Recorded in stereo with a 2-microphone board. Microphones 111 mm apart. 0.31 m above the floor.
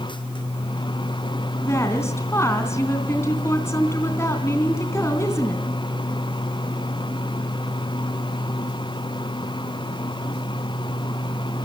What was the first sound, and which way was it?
A woman speaking, 25° left (ahead or behind).